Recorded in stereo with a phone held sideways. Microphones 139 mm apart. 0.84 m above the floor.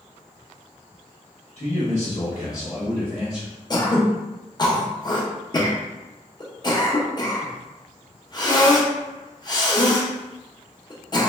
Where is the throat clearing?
30° left (ahead or behind), 0.5 m.